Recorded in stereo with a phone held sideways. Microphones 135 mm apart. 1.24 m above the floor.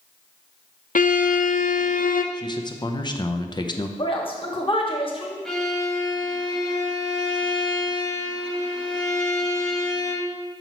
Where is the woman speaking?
40° left (ahead or behind), 1.4 m.